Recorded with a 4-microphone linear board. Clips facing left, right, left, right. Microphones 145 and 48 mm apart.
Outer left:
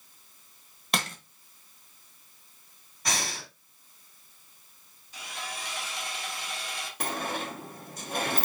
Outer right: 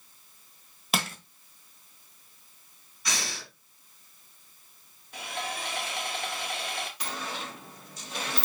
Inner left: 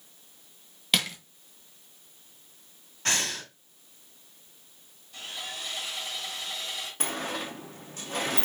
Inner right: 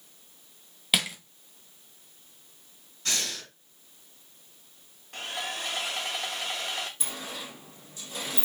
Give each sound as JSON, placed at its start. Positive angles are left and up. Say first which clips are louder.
{"t": 0.9, "sound": "crushing", "louder": "outer right 1 dB, even", "side_deg": -5, "distance_m": 0.8}
{"t": 3.0, "sound": "breathing", "louder": "outer left 3 dB, inner left 3 dB", "side_deg": 50, "distance_m": 1.7}
{"t": 5.1, "sound": "sawing", "louder": "outer right 5 dB, inner right 4 dB", "side_deg": -60, "distance_m": 0.9}
{"t": 7.0, "sound": "a sliding door", "louder": "outer left 4 dB, inner left 6 dB", "side_deg": 50, "distance_m": 0.7}